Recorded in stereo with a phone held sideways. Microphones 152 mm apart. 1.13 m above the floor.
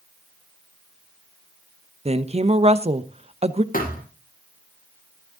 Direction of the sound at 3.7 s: 65° left (ahead or behind).